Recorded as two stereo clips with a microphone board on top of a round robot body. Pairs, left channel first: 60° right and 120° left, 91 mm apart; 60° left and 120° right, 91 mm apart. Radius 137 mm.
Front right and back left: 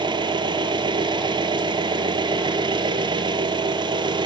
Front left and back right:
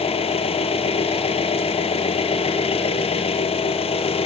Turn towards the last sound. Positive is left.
turn(degrees=80)